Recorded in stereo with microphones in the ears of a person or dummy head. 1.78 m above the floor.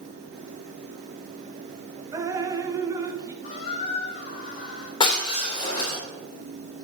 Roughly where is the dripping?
Centre.